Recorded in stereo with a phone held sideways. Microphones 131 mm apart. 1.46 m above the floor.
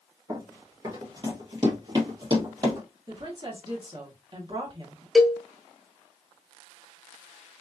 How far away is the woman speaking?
About 1.3 m.